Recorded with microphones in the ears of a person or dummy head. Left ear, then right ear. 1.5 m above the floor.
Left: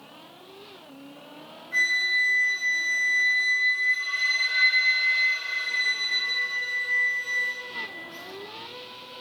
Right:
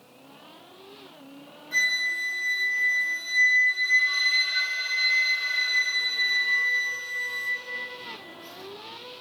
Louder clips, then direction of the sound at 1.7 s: Left 2 dB; 75° right (ahead or behind).